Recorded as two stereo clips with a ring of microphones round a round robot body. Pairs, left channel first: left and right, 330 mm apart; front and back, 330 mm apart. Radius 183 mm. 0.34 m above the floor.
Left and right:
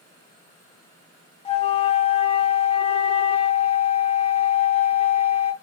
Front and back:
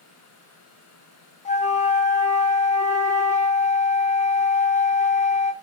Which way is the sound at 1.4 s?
40° left.